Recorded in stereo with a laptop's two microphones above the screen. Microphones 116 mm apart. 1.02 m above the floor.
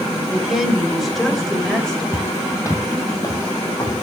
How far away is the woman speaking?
About 5 m.